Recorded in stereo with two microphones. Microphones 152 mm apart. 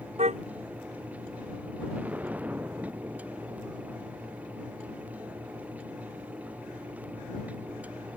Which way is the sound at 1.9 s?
10° right (ahead or behind).